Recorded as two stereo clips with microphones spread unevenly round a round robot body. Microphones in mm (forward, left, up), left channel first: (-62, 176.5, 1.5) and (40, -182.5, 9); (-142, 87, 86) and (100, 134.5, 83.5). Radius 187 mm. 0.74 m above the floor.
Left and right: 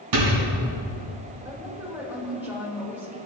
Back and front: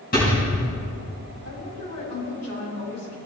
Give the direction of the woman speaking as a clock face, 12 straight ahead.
5 o'clock.